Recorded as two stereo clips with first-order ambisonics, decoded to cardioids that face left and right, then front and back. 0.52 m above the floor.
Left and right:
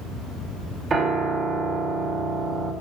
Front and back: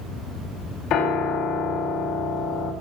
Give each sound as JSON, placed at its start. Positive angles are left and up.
{"t": 0.9, "sound": "a piano", "azimuth_deg": -30, "distance_m": 1.9}